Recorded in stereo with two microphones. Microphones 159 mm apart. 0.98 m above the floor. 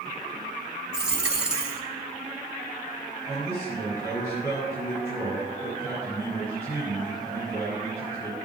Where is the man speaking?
15° right (ahead or behind), 6 m.